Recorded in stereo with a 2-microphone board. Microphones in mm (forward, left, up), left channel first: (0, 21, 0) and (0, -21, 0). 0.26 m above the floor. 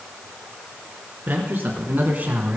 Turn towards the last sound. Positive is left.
turn(degrees=-35)  # may be behind; listen again after turning